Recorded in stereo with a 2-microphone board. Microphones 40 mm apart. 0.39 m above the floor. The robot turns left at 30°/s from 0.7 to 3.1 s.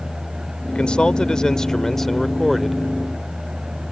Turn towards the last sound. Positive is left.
turn(degrees=-20)